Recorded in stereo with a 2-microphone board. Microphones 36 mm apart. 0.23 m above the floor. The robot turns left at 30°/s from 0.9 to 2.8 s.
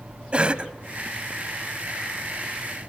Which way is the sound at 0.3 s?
35° right (ahead or behind).